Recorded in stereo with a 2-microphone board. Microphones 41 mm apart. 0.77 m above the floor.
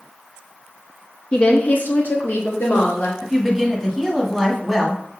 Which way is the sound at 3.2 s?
5° left (ahead or behind).